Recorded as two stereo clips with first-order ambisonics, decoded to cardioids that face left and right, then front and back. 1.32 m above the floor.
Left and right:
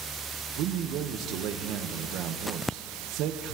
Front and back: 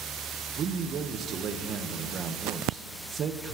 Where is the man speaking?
120° right, 1.0 m.